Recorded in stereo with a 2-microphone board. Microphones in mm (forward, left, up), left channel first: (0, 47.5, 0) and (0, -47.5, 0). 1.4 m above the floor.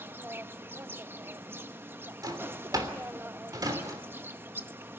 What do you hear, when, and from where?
0.0 s an insect: 25° right (ahead or behind), 0.7 m
2.2 s a drawer: 40° right (ahead or behind), 3 m